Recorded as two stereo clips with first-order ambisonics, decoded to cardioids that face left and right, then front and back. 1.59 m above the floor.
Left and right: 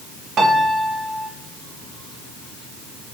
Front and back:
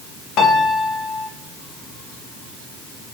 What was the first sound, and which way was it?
A piano, 35° right.